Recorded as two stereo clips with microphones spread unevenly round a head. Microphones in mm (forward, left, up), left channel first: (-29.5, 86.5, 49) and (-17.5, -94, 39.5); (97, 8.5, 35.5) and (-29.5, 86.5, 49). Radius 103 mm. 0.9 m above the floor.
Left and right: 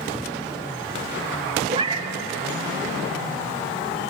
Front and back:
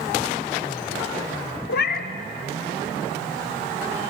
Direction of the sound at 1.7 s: 20° right.